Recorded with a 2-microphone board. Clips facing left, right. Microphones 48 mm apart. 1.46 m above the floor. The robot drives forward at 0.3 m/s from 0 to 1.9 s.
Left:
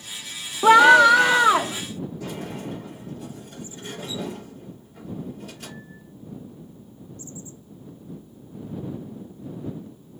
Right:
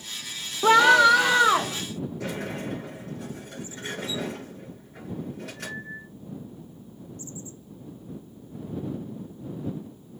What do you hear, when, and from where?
0.6 s a scream: 15° left (ahead or behind), 0.6 m; by 1.8 s 10° left (ahead or behind), 1.0 m
2.2 s a sliding door: 75° right (ahead or behind), 6.5 m